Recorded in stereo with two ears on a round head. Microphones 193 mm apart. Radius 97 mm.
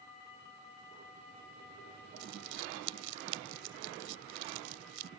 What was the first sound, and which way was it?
Crumpling, 75° right (ahead or behind).